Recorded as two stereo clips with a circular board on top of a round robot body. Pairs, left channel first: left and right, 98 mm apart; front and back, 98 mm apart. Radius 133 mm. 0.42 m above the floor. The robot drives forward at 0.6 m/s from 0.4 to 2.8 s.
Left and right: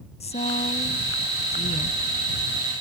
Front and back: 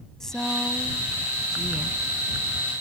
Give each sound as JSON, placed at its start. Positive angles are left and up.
{"t": 0.2, "sound": "a woman speaking", "azimuth_deg": 85}